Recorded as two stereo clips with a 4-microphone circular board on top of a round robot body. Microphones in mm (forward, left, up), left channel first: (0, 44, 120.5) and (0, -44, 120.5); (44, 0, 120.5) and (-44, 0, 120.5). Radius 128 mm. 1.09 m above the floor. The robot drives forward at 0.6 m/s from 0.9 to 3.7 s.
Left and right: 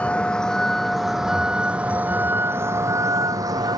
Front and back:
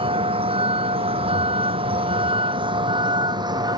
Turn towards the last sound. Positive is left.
turn(degrees=-135)